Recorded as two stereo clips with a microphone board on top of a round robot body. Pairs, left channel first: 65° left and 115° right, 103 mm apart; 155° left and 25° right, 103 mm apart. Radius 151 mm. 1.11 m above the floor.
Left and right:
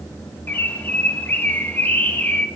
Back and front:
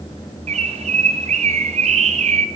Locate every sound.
0.5 s a bird: 5° right, 0.8 m